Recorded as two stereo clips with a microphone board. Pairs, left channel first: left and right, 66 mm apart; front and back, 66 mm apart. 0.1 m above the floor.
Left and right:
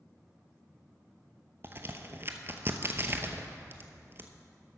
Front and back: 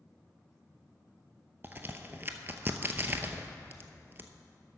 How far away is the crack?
About 0.7 m.